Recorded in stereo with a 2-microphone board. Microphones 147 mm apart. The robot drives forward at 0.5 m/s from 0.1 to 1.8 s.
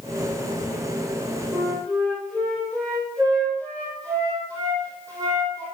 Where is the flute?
10° left (ahead or behind), 3.5 m.